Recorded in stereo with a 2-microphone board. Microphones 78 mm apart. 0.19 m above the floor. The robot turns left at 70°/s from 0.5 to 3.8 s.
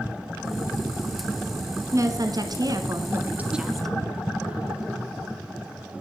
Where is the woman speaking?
55° right, 1.7 m; by 4.0 s 175° left, 1.7 m.